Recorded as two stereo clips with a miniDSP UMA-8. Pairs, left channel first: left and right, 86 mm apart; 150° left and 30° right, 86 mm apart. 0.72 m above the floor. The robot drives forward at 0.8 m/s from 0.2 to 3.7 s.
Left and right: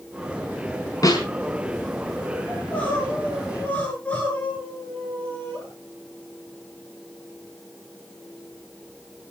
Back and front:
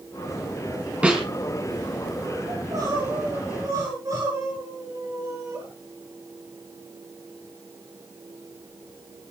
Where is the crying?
15° left, 8.5 m.